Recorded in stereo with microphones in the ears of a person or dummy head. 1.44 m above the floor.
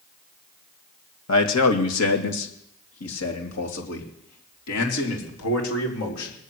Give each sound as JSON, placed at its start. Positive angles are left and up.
{"t": 1.3, "sound": "a man speaking", "side_deg": 85, "distance_m": 2.0}